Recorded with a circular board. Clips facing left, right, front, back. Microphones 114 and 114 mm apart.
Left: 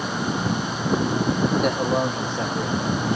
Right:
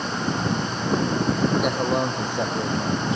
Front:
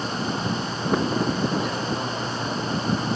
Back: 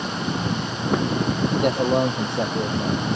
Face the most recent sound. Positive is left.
turn(degrees=-155)